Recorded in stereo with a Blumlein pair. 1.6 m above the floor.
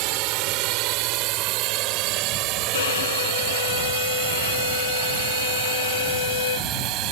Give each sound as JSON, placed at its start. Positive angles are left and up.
{"t": 0.0, "sound": "a drone", "azimuth_deg": -45}
{"t": 2.7, "sound": "a violin", "azimuth_deg": 60}